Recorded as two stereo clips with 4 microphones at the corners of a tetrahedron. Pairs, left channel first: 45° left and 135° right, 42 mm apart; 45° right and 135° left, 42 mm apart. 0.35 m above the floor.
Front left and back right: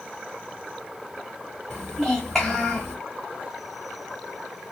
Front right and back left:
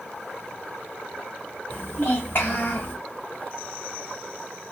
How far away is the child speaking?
About 1.6 m.